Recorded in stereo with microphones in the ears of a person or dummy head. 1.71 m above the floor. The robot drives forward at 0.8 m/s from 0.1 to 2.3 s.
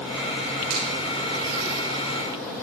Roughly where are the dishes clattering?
No dishes clattering in this recording.